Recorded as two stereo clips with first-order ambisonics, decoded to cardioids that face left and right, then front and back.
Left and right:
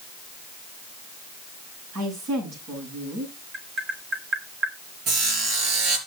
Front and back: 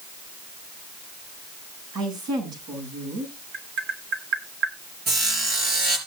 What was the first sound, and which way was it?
A woman speaking, 135° right.